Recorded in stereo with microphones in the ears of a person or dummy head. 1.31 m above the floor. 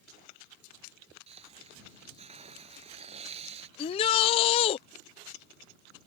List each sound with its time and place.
1.3 s a hiss: 35° right (ahead or behind)
3.8 s a shout: 30° left (ahead or behind)